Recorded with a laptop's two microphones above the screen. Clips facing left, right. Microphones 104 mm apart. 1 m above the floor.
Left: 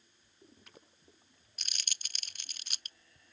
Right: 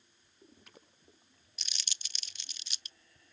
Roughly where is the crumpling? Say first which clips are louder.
Left 1 dB; left.